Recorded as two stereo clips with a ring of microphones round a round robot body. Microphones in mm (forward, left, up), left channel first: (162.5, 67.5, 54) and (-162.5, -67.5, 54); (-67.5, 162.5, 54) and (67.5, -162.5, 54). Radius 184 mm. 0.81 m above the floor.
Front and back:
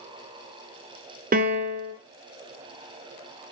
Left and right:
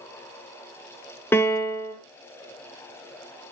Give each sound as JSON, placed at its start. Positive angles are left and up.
{"t": 1.3, "sound": "a piano", "azimuth_deg": -175, "distance_m": 0.7}